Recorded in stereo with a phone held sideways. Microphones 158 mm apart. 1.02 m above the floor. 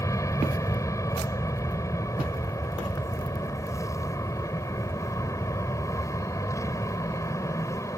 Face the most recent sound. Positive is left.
turn(degrees=20)  # may be behind; listen again after turning